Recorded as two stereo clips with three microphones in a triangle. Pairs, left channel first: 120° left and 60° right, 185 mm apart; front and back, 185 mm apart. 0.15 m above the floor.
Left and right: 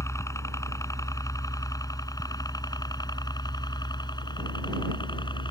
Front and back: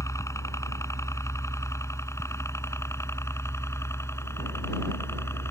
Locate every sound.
0.0 s a helicopter: 60° left; by 5.5 s 70° left